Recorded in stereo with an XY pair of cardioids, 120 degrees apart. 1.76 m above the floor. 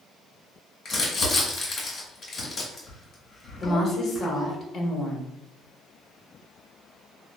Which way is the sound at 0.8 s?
40° left.